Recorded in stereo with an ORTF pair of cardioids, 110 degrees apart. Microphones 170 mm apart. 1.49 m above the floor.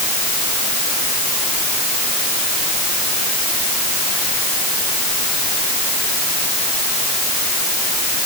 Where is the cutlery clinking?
No cutlery clinking in this recording.